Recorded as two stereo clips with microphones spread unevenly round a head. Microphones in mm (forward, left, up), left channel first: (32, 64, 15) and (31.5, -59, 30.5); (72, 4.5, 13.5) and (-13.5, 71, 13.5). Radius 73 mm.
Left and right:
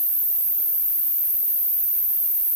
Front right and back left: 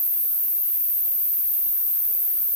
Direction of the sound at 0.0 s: 45° right.